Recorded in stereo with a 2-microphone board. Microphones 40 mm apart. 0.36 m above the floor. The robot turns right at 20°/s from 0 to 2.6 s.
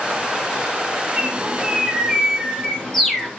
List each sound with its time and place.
1.2 s a bird: 25° right (ahead or behind), 2.5 m; by 3.3 s 5° left (ahead or behind), 2.5 m